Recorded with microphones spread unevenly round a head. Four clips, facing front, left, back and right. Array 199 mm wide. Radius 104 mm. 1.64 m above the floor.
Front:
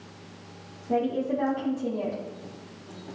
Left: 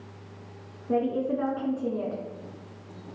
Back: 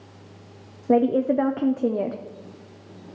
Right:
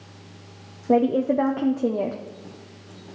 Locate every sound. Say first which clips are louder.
0.9 s a woman speaking: right 7 dB, back 7 dB; 145° right, 0.5 m